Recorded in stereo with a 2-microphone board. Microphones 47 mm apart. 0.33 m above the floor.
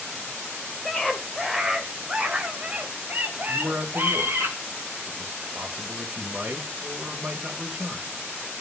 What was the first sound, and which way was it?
A scream, 10° left (ahead or behind).